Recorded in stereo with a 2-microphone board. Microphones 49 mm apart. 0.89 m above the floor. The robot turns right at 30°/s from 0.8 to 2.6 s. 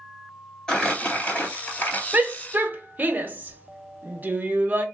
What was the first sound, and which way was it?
Crumpling, 15° left.